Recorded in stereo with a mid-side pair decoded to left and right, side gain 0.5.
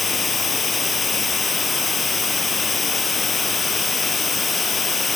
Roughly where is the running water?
Ahead left.